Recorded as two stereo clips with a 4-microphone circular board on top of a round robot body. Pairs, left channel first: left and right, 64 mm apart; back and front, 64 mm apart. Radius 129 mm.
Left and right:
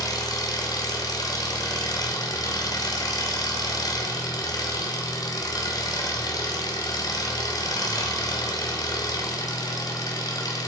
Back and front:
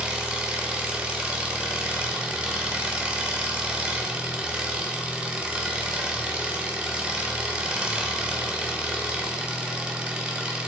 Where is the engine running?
75° left, 1.5 m.